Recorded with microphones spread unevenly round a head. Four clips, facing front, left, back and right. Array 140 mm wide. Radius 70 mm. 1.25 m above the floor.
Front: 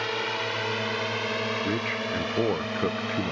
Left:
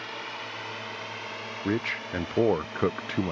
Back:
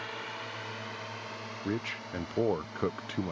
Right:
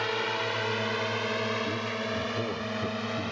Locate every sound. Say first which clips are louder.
0.0 s a drone: right 8 dB, front 11 dB; 50° right; by 3.3 s 35° right
1.6 s a man speaking: left 2 dB, front 7 dB; 70° left